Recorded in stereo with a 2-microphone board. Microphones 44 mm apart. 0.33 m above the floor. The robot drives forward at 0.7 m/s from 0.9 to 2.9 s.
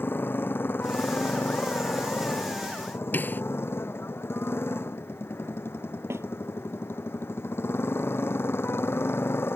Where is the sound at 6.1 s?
85° right.